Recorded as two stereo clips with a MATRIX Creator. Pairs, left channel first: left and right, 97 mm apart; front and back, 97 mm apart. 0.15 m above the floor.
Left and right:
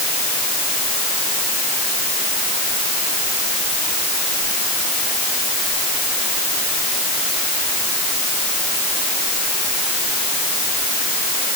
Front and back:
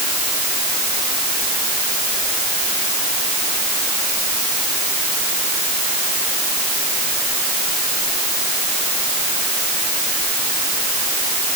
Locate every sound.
Only background noise.